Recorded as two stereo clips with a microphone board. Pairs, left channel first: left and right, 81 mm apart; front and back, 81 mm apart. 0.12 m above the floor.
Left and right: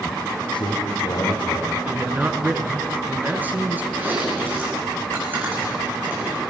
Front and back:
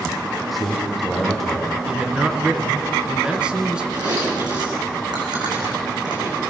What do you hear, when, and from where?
0.5 s a man speaking: 90° left, 4 m
1.9 s a man speaking: 120° right, 1.8 m
3.9 s chewing: 155° right, 6.5 m